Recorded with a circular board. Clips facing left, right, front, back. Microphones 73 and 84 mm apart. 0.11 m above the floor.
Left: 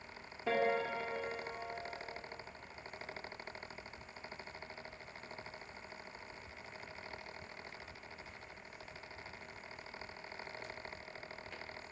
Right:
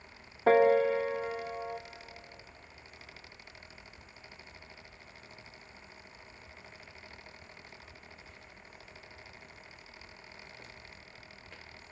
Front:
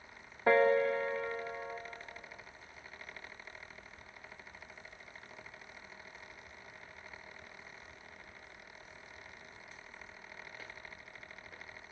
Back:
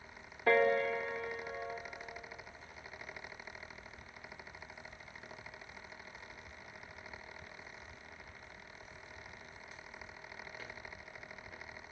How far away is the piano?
About 2.5 m.